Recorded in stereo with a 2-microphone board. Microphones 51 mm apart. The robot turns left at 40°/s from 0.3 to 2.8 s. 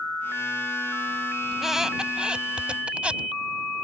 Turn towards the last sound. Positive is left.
turn(degrees=-25)  # may be behind; listen again after turning